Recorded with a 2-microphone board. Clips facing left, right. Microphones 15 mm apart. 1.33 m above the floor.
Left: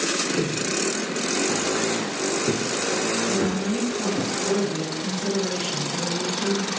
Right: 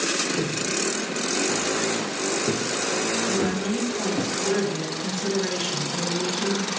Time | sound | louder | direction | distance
0.4 | footsteps | left 1 dB | 45° left (ahead or behind) | 1.9 m
3.3 | a woman speaking | left 1 dB | 75° right (ahead or behind) | 1.5 m